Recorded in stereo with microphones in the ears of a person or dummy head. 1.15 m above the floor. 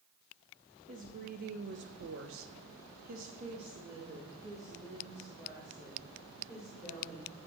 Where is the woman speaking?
40° right (ahead or behind), 1.6 m; by 7.5 s 5° right (ahead or behind), 4 m.